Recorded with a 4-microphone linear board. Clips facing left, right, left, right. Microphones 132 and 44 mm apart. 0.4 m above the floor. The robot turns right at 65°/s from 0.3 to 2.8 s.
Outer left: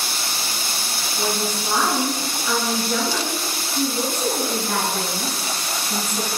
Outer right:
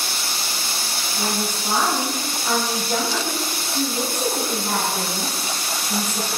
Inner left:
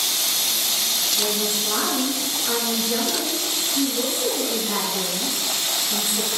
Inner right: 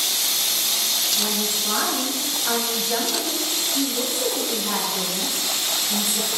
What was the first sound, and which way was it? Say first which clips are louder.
A woman speaking: outer left 2 dB, inner left 1 dB; 155° left.